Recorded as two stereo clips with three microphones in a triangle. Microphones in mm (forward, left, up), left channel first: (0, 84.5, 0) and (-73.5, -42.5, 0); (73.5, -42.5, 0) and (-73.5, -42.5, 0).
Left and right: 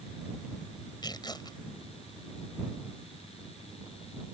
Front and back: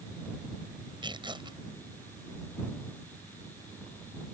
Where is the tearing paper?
120° left.